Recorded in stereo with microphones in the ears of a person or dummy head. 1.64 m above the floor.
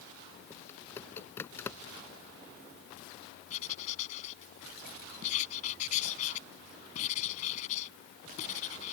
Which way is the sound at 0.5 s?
20° left (ahead or behind).